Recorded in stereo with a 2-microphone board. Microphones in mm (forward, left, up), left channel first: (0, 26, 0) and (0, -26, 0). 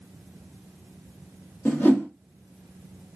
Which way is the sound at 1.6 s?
40° left (ahead or behind).